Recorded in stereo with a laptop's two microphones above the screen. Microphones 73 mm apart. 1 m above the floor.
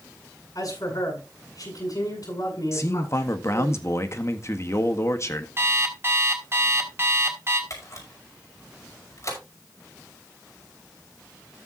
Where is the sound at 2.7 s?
45° left (ahead or behind), 1.6 m.